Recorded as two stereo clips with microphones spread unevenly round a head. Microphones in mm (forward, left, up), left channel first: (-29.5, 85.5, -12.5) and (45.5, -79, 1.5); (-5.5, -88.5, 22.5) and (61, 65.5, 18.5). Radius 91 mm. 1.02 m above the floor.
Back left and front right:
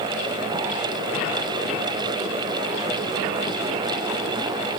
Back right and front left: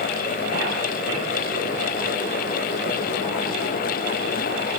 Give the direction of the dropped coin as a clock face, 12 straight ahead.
No dropped coin in this recording.